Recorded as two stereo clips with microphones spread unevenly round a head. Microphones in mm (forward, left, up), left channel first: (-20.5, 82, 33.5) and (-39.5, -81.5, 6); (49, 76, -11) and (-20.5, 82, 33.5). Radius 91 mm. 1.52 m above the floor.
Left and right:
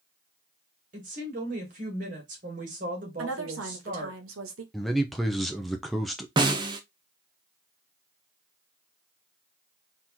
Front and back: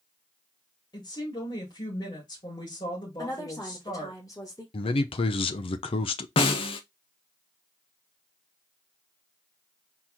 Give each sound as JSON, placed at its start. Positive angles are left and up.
{"t": 0.9, "sound": "a woman speaking", "azimuth_deg": -50, "distance_m": 2.0}
{"t": 3.2, "sound": "a woman speaking", "azimuth_deg": -85, "distance_m": 1.4}
{"t": 4.7, "sound": "a man speaking", "azimuth_deg": 0, "distance_m": 0.6}
{"t": 6.4, "sound": "a snare drum", "azimuth_deg": -25, "distance_m": 0.6}